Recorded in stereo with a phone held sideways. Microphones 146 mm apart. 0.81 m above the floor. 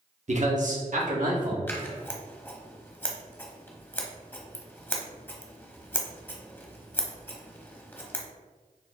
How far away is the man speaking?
About 0.7 m.